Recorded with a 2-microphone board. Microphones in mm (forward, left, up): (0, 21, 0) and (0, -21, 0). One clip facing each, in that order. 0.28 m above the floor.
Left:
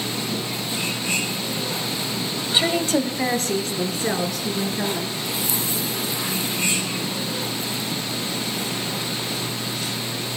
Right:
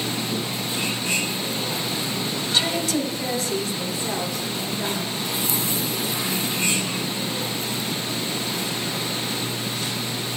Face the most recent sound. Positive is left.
turn(degrees=75)  # may be behind; listen again after turning